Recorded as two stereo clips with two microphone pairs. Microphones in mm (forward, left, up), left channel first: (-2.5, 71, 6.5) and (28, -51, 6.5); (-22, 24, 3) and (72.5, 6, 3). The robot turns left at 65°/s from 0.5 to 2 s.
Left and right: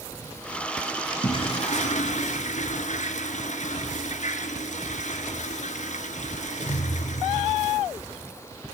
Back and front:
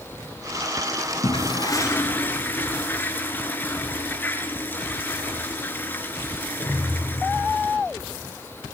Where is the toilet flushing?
150° left, 2 m; by 7.8 s 100° left, 2 m.